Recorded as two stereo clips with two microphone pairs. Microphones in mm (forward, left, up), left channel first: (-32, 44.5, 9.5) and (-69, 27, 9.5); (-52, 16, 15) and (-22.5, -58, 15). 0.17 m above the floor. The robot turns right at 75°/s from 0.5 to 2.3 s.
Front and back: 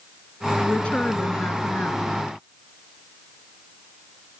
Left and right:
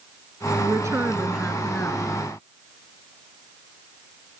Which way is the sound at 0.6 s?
50° right.